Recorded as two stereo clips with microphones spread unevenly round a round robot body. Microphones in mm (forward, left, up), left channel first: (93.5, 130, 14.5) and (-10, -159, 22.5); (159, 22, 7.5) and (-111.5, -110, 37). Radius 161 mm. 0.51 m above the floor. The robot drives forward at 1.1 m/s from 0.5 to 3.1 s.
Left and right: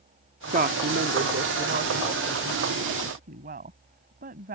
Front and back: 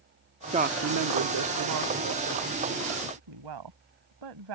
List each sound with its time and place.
0.5 s a woman speaking: 95° right; by 4.5 s 175° right